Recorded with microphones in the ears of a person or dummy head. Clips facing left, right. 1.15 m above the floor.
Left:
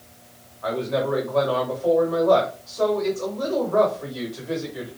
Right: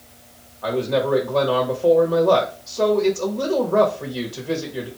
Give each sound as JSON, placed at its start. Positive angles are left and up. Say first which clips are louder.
{"t": 0.6, "sound": "a man speaking", "louder": "right 3 dB", "side_deg": -45, "distance_m": 1.3}